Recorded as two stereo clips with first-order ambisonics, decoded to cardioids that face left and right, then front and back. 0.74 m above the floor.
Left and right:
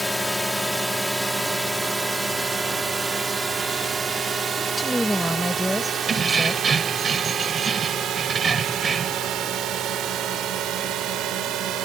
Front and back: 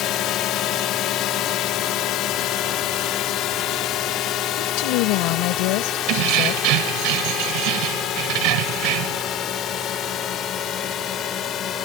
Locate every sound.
0.0 s a drone: 5° left; by 11.9 s 50° right
4.6 s a woman speaking: straight ahead
6.1 s keys jangling: 160° right